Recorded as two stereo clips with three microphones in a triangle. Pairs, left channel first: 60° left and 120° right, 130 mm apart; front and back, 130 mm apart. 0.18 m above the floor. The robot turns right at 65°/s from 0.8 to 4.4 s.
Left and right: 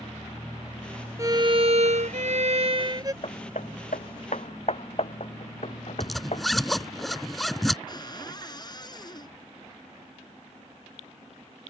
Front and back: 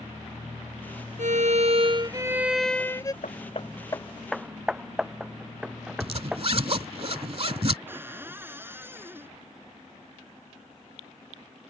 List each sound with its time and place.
1.2 s a violin: straight behind; by 3.1 s 55° right
3.2 s hammering: 20° left; by 6.4 s 95° left
6.0 s a zipper: 150° left
7.9 s a cupboard door: 110° left